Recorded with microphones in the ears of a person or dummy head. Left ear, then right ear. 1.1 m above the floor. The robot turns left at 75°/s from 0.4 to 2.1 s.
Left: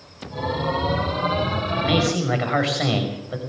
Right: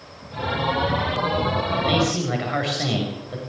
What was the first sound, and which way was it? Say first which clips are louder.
A man speaking: left 2 dB; 10° right (ahead or behind).